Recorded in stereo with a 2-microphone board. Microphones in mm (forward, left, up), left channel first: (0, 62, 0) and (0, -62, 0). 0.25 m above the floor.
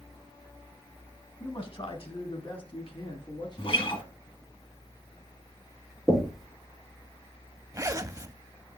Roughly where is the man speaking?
Left.